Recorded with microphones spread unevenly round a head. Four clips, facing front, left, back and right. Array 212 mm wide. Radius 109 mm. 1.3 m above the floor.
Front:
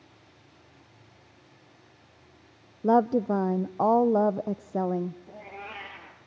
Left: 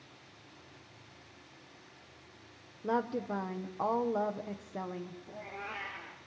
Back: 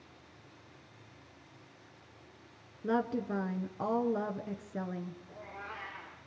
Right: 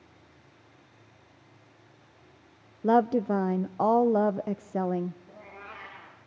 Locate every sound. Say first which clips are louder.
2.8 s a woman speaking: right 10 dB, front 10 dB; 35° right, 0.5 m
5.3 s a cat meowing: left 3 dB, front 4 dB; 10° left, 4.5 m